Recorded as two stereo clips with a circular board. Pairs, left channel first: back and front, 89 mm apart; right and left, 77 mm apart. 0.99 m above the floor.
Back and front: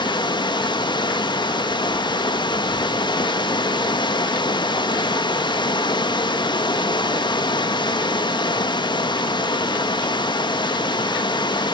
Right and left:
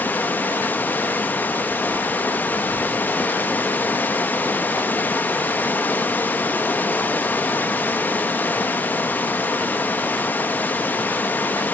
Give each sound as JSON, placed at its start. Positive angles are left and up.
{"t": 0.0, "sound": "running water", "azimuth_deg": -155, "distance_m": 1.2}